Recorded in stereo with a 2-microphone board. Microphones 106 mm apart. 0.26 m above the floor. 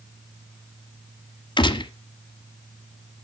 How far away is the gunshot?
About 1.4 m.